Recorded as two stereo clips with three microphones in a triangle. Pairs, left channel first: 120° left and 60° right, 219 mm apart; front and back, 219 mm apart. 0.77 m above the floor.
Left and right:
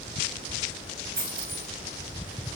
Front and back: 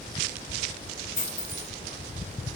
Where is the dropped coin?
60° right, 1.2 m.